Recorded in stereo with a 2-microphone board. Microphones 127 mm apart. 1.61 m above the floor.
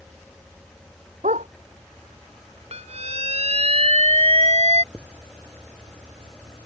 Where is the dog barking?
75° right (ahead or behind).